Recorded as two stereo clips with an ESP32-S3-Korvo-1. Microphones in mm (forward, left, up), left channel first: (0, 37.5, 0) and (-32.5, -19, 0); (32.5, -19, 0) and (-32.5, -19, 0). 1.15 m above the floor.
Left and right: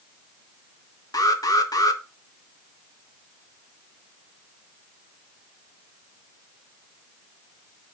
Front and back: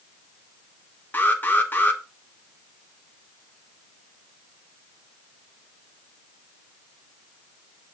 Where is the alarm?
55° left, 1.5 m.